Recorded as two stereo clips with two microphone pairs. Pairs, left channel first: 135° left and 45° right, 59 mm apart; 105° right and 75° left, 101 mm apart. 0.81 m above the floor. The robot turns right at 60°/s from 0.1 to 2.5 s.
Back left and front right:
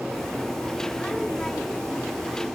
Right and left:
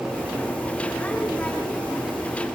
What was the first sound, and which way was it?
Only background noise.